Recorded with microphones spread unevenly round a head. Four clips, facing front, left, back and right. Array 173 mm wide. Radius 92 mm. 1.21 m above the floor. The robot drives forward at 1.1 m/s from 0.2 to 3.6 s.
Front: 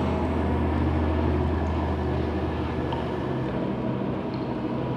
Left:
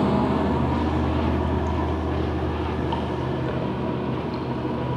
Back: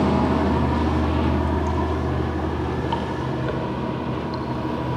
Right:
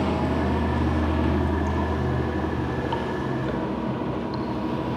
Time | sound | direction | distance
0.0 | running water | 160° left | 1.3 m